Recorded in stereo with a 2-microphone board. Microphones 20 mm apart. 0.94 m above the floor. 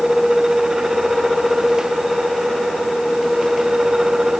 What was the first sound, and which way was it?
Only background noise.